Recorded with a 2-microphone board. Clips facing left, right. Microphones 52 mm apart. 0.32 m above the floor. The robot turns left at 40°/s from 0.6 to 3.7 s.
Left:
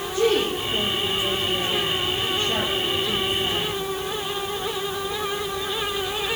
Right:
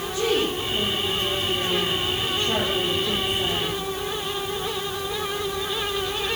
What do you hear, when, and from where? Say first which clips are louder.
0.1 s a woman speaking: left 3 dB; 15° left, 9 m; by 3.8 s 110° right, 9 m